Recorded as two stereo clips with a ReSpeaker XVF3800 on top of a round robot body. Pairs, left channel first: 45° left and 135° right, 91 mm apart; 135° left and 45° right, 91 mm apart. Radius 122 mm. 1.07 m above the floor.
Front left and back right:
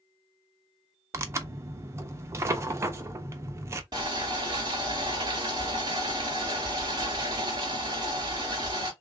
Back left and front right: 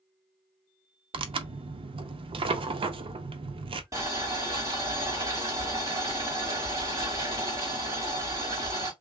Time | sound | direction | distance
1.1 | tearing paper | 75° right | 0.6 m
3.9 | boiling | 95° right | 0.7 m